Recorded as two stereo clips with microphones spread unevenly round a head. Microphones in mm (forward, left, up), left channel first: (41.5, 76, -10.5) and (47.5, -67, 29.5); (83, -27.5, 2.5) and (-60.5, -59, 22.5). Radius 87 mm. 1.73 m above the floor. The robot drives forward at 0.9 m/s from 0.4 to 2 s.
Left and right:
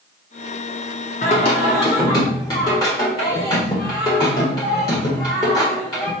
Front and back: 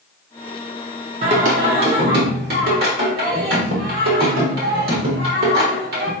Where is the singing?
150° left, 0.7 m; by 6.1 s 165° left, 1.3 m.